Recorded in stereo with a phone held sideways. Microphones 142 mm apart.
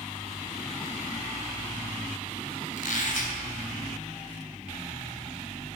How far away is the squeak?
About 3 m.